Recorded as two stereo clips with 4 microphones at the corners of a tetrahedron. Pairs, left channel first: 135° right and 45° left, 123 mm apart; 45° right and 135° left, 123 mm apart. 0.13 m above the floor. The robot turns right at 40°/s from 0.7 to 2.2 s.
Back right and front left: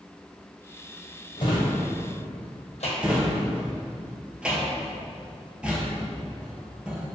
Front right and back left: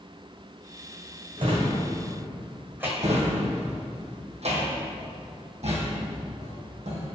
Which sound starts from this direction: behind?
A drawer, at 1.4 s.